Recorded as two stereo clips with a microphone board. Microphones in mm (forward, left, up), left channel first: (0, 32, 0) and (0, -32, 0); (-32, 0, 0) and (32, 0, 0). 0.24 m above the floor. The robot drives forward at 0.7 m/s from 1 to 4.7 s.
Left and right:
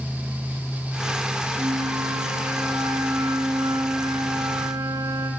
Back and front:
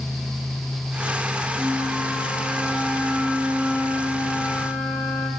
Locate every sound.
1.6 s a flute: 105° right, 5 m; by 5.3 s 125° right, 6 m